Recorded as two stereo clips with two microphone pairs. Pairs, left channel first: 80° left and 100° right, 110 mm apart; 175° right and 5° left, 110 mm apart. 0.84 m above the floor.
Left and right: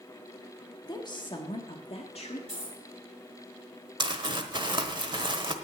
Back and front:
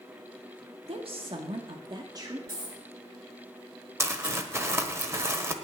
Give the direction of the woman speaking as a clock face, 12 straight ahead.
11 o'clock.